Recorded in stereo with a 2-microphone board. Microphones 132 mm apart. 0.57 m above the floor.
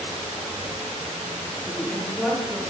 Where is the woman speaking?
5° left (ahead or behind), 1.0 m.